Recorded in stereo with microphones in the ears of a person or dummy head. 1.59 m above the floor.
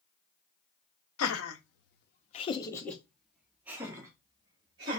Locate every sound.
1.2 s laughter: 80° left, 0.8 m; by 5.0 s 25° right (ahead or behind), 1.6 m